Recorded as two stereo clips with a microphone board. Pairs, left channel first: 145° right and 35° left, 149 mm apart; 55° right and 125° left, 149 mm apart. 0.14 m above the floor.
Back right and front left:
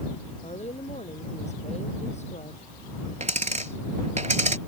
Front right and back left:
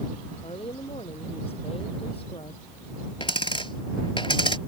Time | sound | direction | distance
0.4 | a woman speaking | 105° right | ?
3.2 | a dropped coin | straight ahead | ?